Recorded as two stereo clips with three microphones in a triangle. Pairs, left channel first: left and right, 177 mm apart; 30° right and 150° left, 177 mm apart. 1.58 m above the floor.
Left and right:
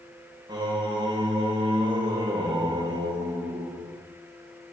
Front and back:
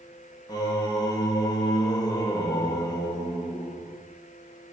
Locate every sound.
0.5 s singing: 65° right, 0.9 m